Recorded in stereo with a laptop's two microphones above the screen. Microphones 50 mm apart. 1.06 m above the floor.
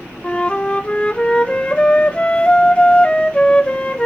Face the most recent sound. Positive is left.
turn(degrees=20)  # may be behind; listen again after turning